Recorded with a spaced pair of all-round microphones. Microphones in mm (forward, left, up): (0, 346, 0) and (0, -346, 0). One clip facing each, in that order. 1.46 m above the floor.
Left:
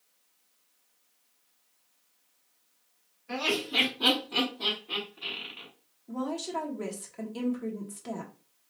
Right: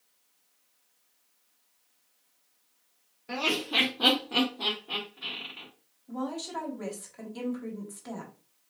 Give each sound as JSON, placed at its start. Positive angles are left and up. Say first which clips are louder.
{"t": 3.3, "sound": "laughter", "louder": "even", "side_deg": -65, "distance_m": 0.9}
{"t": 6.1, "sound": "a woman speaking", "louder": "left 1 dB", "side_deg": 55, "distance_m": 1.0}